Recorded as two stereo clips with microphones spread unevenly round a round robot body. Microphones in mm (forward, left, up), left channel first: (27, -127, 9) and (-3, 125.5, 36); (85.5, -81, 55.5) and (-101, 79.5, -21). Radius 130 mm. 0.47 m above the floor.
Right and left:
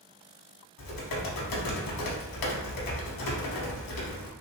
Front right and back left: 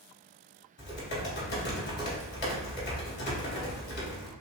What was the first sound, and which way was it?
Typing on a keyboard, 90° right.